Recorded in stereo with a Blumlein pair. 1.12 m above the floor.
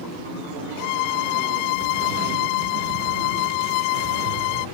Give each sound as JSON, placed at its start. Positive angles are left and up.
{"t": 0.8, "sound": "a violin", "azimuth_deg": 45}